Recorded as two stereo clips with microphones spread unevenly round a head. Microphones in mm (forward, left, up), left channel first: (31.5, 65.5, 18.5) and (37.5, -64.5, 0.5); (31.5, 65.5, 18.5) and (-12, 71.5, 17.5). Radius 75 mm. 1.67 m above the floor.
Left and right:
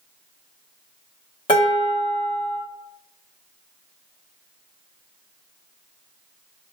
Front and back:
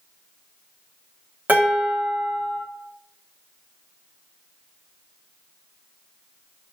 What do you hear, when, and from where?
1.5 s dishes clattering: 135° left, 1.0 m